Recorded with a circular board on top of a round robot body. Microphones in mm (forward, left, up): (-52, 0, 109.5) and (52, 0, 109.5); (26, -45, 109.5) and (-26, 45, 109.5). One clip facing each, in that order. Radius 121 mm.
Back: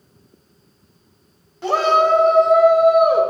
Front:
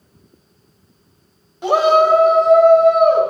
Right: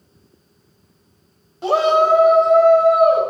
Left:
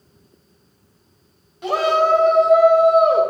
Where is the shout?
60° right, 1.3 m; by 3.2 s 115° left, 1.3 m.